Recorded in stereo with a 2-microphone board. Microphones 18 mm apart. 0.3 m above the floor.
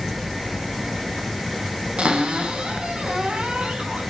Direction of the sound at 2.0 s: 65° right (ahead or behind).